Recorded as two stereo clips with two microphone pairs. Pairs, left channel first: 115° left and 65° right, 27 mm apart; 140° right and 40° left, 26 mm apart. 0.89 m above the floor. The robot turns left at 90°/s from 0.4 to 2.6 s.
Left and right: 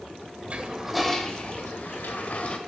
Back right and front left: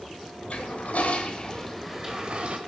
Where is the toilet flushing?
105° right, 1.7 m; by 2.6 s 65° left, 1.7 m.